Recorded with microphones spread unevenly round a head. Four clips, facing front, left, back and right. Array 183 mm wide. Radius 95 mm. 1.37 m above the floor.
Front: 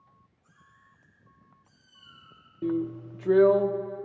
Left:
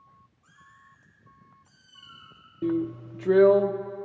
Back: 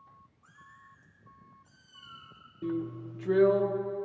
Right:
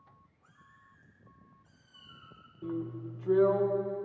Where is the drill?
85° left, 0.6 m.